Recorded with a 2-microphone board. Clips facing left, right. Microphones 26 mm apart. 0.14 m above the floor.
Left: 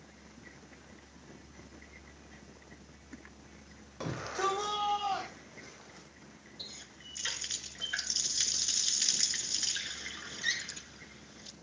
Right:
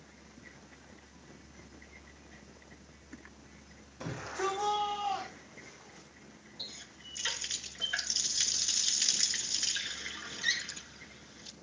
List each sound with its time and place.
4.0 s a shout: 60° left (ahead or behind), 6.5 m; by 6.1 s 70° left (ahead or behind), 8.5 m
6.6 s a running tap: 5° right (ahead or behind), 1.2 m